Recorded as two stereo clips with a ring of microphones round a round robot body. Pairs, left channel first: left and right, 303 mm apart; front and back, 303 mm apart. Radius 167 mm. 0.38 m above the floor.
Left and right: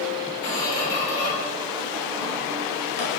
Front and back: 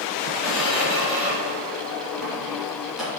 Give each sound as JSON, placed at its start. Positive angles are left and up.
{"t": 0.4, "sound": "a squeak", "azimuth_deg": 90, "distance_m": 2.5}